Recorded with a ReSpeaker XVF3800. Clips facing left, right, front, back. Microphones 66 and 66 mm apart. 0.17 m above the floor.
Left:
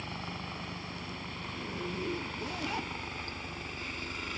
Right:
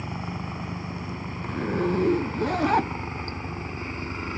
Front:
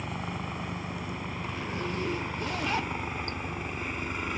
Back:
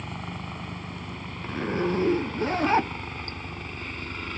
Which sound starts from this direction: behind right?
A zipper, at 1.4 s.